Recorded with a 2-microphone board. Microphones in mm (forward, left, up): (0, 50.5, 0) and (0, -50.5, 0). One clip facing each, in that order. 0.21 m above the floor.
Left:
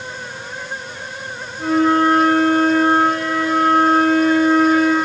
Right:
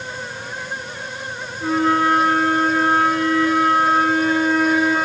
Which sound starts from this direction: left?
A flute, at 1.6 s.